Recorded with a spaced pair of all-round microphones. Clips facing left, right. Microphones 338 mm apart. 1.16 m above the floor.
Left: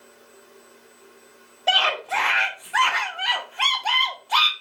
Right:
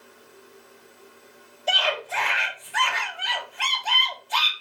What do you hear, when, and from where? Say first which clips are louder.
1.7 s a scream: left 1 dB; 75° left (ahead or behind), 0.7 m